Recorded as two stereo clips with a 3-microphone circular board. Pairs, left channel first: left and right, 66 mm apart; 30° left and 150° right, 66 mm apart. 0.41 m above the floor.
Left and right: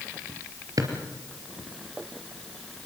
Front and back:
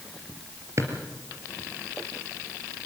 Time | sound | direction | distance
0.8 | a drawer | 110° right | 3 m